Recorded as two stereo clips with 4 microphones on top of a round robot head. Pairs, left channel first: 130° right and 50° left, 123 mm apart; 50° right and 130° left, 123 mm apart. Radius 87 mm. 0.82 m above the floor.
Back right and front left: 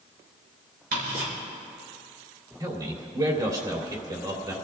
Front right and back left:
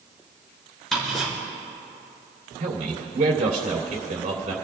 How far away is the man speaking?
About 3 m.